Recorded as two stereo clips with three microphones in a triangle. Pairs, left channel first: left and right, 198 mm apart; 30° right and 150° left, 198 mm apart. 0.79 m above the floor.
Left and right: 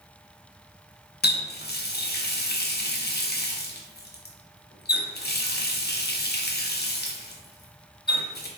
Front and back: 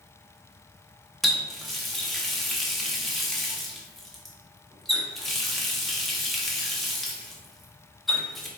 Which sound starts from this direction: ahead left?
A running tap, at 1.2 s.